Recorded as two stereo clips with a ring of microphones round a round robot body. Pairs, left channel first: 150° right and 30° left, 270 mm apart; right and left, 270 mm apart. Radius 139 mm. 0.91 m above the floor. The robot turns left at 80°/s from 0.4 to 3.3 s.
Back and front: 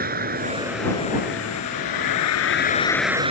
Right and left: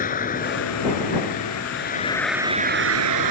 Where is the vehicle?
30° right; by 3.3 s 100° left.